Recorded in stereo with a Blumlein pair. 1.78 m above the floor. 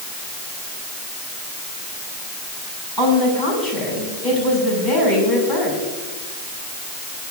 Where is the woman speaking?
5° right, 7 m.